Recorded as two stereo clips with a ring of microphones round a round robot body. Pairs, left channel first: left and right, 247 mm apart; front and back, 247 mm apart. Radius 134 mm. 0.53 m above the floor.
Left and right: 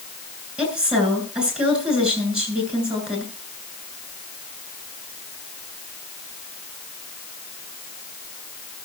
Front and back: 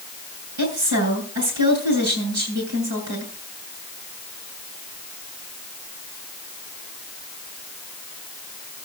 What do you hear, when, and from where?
0.6 s a woman speaking: 175° right, 8.5 m